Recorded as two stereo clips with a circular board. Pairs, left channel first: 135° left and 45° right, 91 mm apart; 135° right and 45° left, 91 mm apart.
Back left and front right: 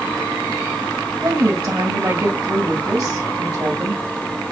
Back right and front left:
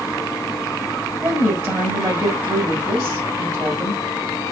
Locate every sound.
1.2 s a woman speaking: 5° right, 2 m